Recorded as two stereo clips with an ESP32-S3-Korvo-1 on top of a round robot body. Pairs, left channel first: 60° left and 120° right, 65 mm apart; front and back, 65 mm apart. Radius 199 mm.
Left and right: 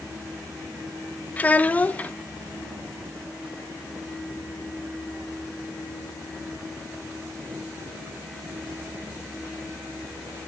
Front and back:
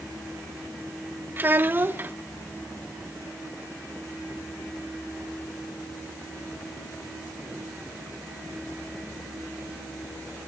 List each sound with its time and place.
1.4 s a child speaking: 125° left, 0.9 m